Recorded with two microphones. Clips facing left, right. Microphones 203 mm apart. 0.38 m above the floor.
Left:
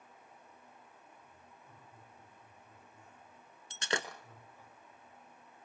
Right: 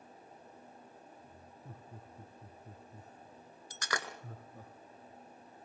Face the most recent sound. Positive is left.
turn(degrees=25)  # may be behind; listen again after turning